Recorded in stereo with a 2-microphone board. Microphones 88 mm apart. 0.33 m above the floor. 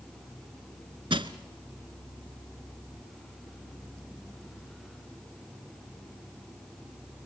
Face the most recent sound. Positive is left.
turn(degrees=-90)